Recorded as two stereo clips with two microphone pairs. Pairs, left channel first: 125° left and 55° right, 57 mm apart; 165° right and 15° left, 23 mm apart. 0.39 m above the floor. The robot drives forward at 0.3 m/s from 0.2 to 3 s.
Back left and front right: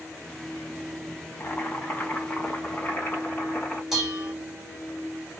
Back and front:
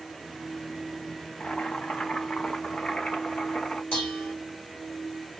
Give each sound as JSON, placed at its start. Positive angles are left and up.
{"t": 1.4, "sound": "boiling", "azimuth_deg": -175, "distance_m": 0.8}
{"t": 3.9, "sound": "dishes clattering", "azimuth_deg": -140, "distance_m": 1.6}